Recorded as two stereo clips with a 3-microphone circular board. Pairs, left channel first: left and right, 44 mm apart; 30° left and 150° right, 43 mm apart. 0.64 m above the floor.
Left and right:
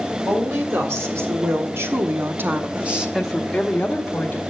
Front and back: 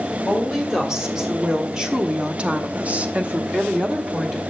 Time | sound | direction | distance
0.3 | a woman speaking | 70° right | 2.5 m